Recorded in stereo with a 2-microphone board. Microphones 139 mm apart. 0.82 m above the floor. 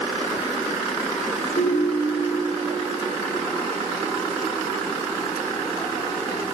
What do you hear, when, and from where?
1.6 s a ringtone: 70° left (ahead or behind), 3 m